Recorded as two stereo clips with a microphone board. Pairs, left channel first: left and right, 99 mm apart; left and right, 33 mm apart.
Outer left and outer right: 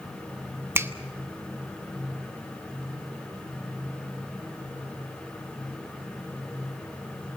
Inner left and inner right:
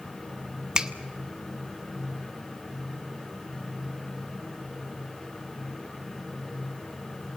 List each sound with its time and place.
0.8 s a finger snap: 25° right (ahead or behind), 0.8 m